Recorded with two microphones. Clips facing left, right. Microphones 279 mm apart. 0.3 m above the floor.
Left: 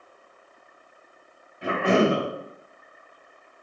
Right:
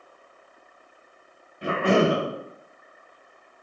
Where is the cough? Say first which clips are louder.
Even; 25° right (ahead or behind), 1.5 m.